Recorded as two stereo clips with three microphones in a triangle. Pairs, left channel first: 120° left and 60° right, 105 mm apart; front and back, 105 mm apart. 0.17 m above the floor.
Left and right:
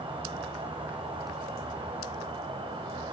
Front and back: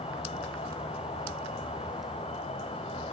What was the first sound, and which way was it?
An insect, 20° right.